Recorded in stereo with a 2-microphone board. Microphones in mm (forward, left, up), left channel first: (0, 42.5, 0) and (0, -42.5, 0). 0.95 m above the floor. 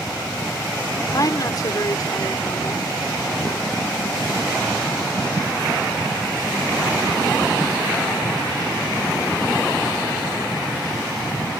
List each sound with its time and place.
1.1 s a woman speaking: 50° left (ahead or behind)